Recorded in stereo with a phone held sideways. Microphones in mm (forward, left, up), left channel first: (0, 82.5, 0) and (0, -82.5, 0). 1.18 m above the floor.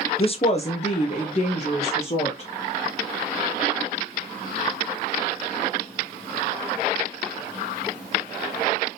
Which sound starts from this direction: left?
A woman speaking, at 0.2 s.